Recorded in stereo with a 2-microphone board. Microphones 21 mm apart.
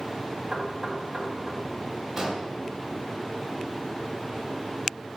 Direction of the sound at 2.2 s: 15° right (ahead or behind).